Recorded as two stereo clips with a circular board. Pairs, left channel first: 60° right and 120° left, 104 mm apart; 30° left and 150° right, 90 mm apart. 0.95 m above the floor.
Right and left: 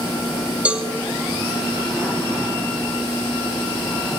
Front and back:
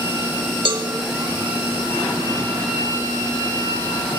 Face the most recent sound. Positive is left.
turn(degrees=-165)